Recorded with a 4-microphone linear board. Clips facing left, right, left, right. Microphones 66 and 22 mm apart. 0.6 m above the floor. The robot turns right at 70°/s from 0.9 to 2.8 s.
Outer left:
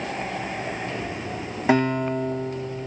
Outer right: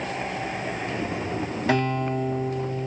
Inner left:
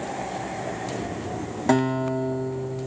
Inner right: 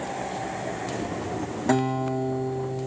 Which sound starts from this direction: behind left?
A guitar, at 1.7 s.